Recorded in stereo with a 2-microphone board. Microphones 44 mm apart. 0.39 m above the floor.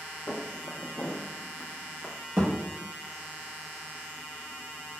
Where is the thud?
65° right (ahead or behind), 2.0 m.